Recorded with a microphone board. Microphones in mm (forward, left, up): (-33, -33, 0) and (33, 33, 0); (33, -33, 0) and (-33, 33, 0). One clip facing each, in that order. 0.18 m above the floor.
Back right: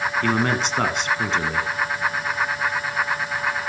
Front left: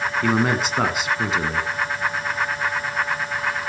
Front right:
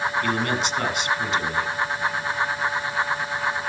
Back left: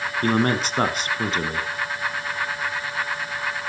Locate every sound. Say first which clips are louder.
0.2 s a man speaking: front left 3 dB, back left 3 dB; 125° left, 1.5 m